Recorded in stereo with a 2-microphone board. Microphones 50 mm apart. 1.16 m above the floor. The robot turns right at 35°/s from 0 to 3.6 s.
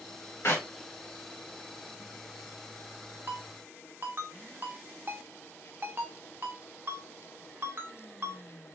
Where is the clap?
60° left (ahead or behind), 1.3 m; by 0.7 s 70° left (ahead or behind), 1.3 m.